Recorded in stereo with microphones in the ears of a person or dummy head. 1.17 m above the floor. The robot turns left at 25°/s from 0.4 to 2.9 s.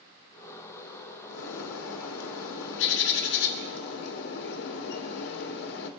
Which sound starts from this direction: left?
A bird, at 1.3 s.